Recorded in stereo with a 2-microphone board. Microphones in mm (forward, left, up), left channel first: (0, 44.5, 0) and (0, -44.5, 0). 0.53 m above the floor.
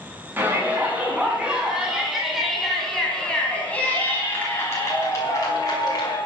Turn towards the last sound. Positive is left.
turn(degrees=45)  # may be behind; listen again after turning